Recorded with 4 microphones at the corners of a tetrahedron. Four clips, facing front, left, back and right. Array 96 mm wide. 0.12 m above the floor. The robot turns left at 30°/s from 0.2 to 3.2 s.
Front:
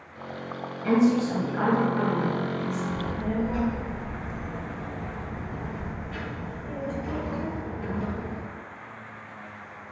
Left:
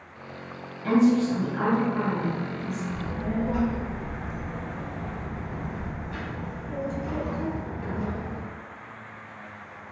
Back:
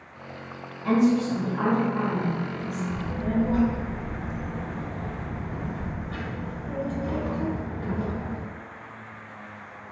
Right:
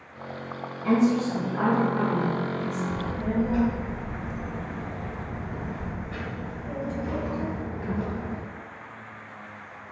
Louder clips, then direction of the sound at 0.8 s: Left 2 dB, even; 50° left.